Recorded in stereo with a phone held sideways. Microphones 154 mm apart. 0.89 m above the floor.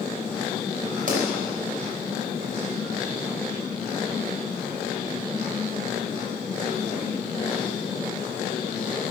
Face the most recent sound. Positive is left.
turn(degrees=-60)  # may be behind; listen again after turning